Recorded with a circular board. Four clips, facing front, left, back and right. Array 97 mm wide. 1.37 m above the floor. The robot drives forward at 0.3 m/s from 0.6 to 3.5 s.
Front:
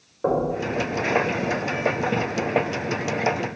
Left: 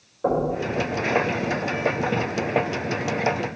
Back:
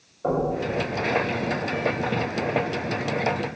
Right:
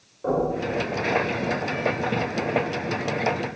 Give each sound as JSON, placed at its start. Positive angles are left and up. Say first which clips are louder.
{"t": 0.2, "sound": "knocking", "louder": "left 1 dB, front 2 dB", "azimuth_deg": 15, "distance_m": 4.0}